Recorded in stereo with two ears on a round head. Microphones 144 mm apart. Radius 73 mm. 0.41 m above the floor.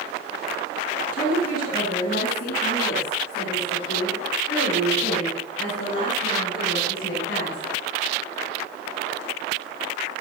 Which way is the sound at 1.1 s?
60° left (ahead or behind).